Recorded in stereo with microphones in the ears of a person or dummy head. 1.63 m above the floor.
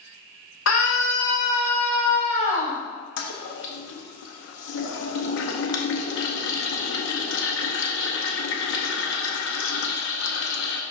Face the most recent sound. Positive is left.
turn(degrees=70)  # may be behind; listen again after turning